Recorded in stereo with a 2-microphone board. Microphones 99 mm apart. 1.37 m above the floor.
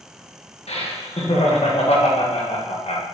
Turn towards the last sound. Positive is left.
turn(degrees=75)  # may be behind; listen again after turning